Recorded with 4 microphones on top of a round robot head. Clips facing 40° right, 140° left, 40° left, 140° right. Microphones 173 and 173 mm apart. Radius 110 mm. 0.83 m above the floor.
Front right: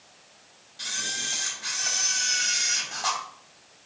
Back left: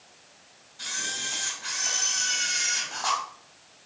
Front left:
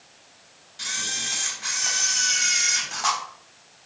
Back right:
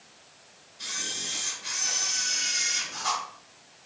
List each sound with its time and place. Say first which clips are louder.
0.8 s a camera shutter: even, front left 2 dB; 30° left, 3.5 m